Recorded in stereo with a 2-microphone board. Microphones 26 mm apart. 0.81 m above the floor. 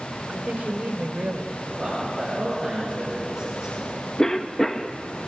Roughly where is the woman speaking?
Right.